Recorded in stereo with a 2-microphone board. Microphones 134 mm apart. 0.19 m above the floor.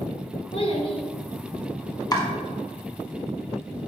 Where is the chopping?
30° left (ahead or behind), 1.0 m.